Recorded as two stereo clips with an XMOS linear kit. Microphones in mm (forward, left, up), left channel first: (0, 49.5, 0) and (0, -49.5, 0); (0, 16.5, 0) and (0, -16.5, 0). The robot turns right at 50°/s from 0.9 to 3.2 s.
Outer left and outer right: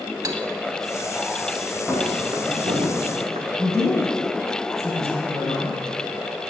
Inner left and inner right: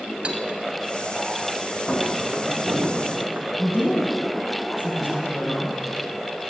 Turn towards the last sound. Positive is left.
turn(degrees=-30)  # may be behind; listen again after turning